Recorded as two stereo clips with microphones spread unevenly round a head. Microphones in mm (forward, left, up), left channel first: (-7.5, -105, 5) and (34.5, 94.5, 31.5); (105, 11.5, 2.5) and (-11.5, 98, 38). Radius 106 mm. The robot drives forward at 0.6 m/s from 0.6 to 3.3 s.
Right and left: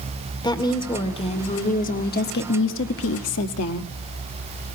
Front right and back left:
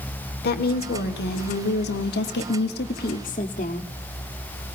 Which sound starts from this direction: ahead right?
A woman speaking, at 0.4 s.